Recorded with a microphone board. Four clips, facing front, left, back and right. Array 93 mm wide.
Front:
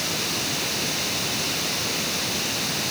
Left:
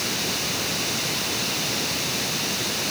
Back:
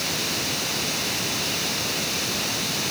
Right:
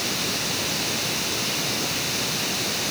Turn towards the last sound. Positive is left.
No sound to turn to.